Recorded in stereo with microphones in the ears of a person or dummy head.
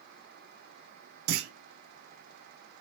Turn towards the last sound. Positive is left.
turn(degrees=-70)  # may be behind; listen again after turning